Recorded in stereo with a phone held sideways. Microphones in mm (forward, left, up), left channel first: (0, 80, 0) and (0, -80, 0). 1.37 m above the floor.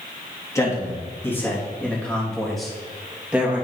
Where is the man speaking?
20° left (ahead or behind), 3 m; by 3.6 s 10° right (ahead or behind), 2.5 m.